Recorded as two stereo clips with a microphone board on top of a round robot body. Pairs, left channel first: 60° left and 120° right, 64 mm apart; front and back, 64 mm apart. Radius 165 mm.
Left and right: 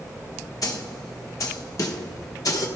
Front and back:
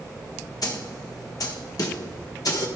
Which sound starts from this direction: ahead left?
A snare drum, at 0.6 s.